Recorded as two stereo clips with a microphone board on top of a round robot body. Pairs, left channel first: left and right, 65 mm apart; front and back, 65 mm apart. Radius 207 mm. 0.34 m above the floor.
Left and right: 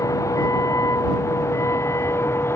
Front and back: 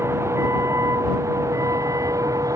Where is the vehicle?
130° left; by 2.6 s 145° left.